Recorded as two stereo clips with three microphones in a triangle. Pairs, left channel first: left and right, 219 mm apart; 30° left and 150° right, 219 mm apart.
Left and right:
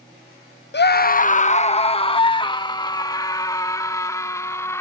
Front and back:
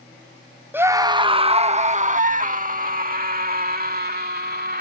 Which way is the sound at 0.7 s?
130° left.